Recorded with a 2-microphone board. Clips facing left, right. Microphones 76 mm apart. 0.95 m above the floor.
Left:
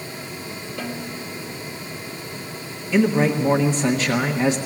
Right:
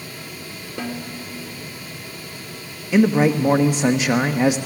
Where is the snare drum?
30° right (ahead or behind), 3 m.